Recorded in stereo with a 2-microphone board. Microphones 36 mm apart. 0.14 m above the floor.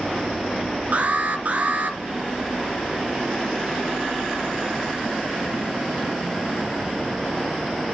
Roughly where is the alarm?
Right.